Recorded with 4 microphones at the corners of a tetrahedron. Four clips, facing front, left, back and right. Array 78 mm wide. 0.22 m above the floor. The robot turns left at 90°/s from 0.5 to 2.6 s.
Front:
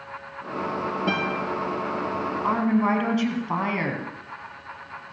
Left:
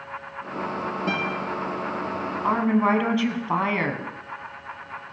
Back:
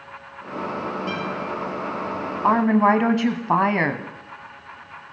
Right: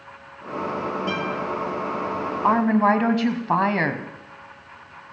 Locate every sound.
1.1 s a guitar: 40° left, 9.5 m; by 1.4 s 15° left, 9.5 m
2.4 s a woman speaking: 140° right, 1.4 m; by 4.1 s 155° right, 1.4 m